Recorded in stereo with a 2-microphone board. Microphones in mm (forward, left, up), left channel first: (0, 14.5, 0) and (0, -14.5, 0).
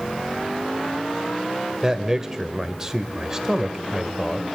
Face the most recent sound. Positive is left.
turn(degrees=-15)  # may be behind; listen again after turning